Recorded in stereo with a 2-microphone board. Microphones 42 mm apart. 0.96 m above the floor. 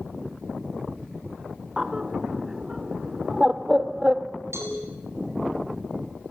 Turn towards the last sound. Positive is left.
turn(degrees=-85)